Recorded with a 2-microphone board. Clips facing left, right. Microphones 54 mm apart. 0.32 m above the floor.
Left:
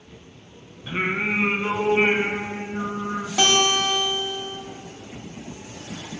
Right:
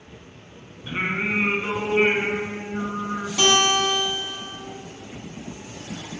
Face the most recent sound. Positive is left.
turn(degrees=40)  # may be behind; listen again after turning